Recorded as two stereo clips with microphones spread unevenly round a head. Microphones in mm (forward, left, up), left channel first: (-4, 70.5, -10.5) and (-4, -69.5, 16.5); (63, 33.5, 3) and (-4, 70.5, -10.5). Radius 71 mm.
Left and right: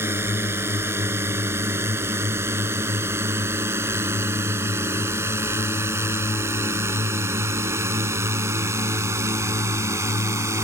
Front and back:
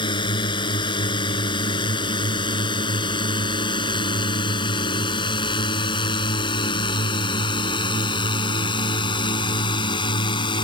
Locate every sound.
0.0 s a drone: 15° right; by 10.6 s 20° right